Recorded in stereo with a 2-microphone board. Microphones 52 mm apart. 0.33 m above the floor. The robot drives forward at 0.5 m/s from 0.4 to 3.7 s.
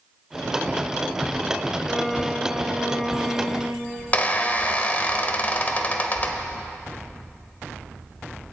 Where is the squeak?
30° left (ahead or behind), 0.8 m.